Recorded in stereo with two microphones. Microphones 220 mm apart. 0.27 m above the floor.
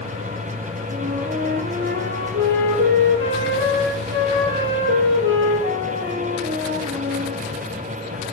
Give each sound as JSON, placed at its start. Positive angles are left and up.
{"t": 0.9, "sound": "a flute", "side_deg": -55, "distance_m": 6.5}